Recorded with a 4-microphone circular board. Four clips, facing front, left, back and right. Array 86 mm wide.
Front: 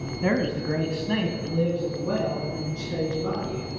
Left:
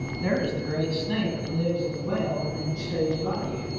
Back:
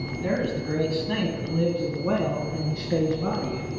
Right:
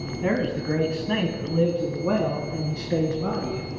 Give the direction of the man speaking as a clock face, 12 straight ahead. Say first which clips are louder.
Right 2 dB, front 2 dB; 1 o'clock.